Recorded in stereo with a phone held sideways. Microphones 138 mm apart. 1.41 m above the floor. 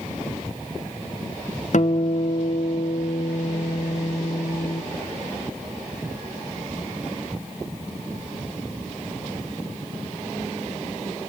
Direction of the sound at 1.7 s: 65° left (ahead or behind).